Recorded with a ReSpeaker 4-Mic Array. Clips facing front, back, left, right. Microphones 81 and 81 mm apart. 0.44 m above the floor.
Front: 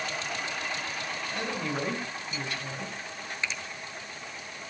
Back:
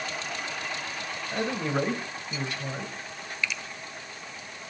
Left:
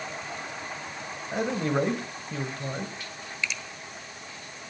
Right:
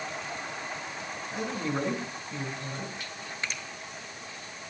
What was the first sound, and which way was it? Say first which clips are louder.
A man speaking: back 6 dB, left 6 dB; 120° left.